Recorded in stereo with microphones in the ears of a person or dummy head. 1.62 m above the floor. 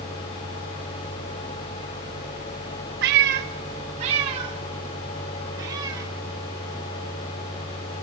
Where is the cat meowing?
60° right (ahead or behind), 1.4 m; by 6.1 s 20° right (ahead or behind), 4.5 m.